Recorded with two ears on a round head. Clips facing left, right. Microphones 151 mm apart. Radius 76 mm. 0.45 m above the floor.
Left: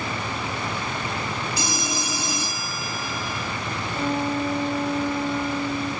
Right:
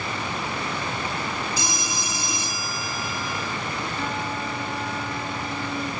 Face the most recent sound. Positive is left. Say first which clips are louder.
# left 5 dB
turn(degrees=25)  # may be behind; listen again after turning